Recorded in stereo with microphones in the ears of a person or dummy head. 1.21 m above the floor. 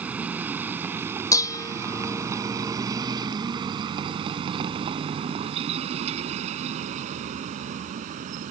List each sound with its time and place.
0.0 s a vehicle: 5° right (ahead or behind); by 8.5 s 45° right (ahead or behind)
1.3 s dishes clattering: 20° left (ahead or behind)